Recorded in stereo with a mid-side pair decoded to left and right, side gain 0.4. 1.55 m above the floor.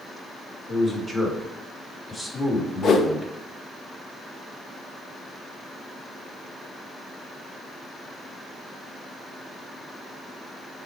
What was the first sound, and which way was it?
A man speaking, 5° left.